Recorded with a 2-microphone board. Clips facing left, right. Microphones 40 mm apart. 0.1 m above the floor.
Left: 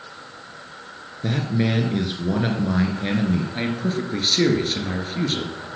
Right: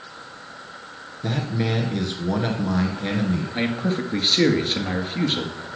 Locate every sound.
1.2 s a man speaking: 10° left (ahead or behind), 1.4 m
3.5 s a man speaking: 15° right (ahead or behind), 1.9 m